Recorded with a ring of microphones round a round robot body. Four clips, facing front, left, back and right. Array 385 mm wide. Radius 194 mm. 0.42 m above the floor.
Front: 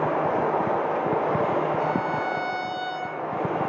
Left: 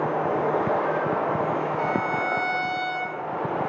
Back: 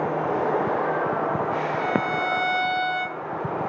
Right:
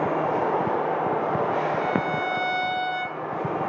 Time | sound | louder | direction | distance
1.8 | a violin | even, back 1 dB | 175° left | 2.5 m